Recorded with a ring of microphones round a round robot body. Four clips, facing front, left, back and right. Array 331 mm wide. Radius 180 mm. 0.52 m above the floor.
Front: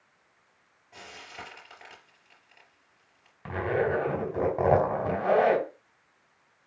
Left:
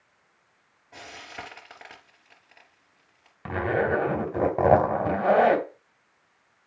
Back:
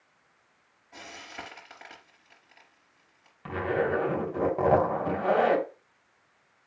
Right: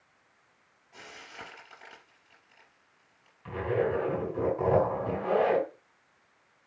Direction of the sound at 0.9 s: 105° left.